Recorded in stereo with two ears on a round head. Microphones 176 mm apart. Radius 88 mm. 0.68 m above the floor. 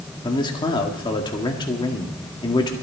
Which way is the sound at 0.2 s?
25° left (ahead or behind).